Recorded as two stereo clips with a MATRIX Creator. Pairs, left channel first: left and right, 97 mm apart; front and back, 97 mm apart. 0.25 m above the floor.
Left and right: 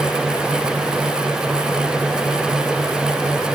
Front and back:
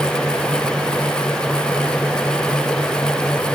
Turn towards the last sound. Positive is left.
No sound to turn to.